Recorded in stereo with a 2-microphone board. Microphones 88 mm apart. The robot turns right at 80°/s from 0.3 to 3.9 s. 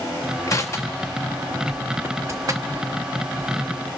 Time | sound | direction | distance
0.5 | crushing | 35° left (ahead or behind) | 1.2 m